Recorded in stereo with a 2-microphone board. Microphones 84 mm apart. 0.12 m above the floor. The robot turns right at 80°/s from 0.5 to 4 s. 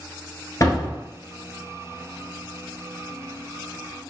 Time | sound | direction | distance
0.6 | a door slam | 105° left | 1.2 m